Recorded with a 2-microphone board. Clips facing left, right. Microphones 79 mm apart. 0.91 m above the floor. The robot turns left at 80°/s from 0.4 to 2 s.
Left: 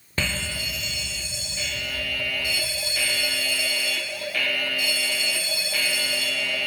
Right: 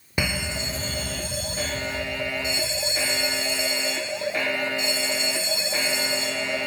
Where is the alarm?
20° right, 0.5 m; by 6.7 s 145° right, 0.5 m.